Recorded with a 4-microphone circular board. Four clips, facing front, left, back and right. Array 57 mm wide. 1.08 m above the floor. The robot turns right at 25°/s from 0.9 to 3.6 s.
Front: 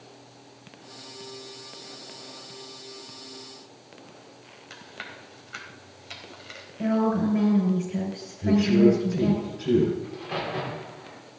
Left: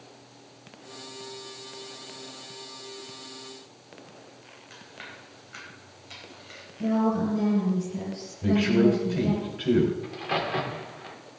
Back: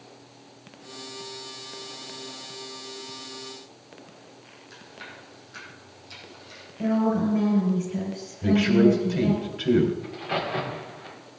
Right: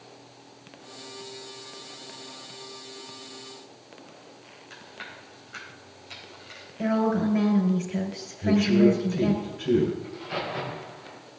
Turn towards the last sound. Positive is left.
turn(degrees=110)